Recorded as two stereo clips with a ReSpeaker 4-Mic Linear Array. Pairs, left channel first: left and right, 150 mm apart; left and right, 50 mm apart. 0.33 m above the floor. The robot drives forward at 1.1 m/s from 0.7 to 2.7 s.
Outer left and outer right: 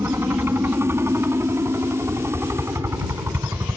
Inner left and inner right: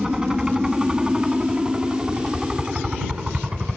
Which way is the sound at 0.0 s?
15° right (ahead or behind).